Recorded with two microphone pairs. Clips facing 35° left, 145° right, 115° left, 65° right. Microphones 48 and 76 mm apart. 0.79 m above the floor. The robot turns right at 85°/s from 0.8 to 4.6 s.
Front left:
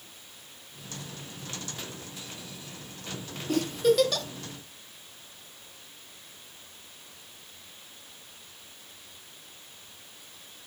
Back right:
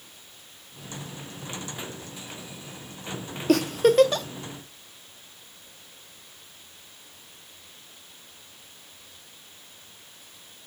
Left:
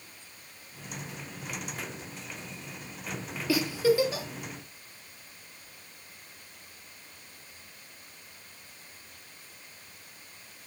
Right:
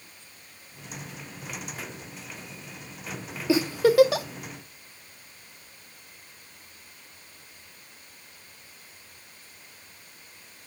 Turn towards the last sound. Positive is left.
turn(degrees=-40)